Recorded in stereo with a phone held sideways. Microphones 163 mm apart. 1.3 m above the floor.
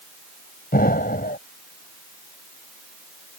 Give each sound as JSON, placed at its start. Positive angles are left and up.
{"t": 0.7, "sound": "an explosion", "side_deg": 65}